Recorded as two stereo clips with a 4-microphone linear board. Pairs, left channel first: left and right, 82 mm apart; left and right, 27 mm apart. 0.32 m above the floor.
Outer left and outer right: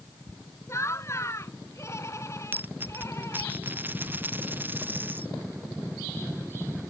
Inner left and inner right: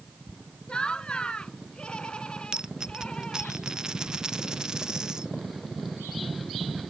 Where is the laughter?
40° left (ahead or behind).